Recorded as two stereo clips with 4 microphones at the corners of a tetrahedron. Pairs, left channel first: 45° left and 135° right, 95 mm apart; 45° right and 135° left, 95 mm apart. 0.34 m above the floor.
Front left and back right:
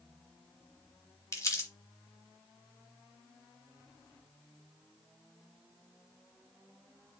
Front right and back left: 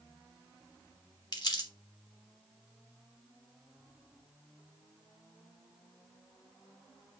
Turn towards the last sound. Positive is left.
turn(degrees=-10)